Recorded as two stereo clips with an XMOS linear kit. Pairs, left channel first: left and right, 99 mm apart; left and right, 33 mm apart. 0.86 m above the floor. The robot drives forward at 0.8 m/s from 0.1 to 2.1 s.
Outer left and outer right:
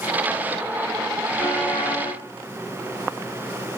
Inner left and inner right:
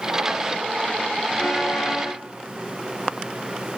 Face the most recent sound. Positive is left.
turn(degrees=15)  # may be behind; listen again after turning